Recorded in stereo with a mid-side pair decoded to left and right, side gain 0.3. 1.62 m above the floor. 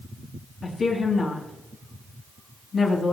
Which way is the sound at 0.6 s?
65° left.